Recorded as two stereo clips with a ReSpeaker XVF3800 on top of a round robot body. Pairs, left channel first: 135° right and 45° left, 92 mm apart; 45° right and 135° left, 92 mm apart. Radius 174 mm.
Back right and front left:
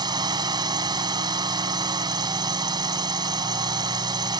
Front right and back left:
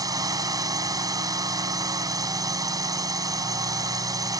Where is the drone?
85° left.